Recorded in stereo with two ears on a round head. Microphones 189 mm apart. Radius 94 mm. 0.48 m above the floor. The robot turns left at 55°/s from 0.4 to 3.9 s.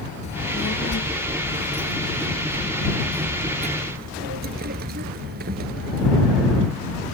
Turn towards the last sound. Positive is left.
turn(degrees=-45)